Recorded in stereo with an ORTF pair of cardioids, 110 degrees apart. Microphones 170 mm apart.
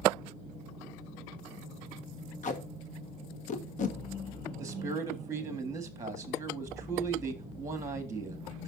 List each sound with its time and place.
2.4 s tape being pulled: 50° left, 1.5 m
4.6 s a man speaking: 20° right, 1.7 m